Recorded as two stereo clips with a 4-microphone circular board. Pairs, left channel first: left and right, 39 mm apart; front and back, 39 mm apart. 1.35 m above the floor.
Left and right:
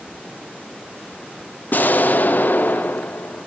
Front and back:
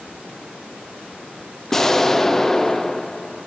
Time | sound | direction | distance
1.7 | an explosion | 75° left | 0.6 m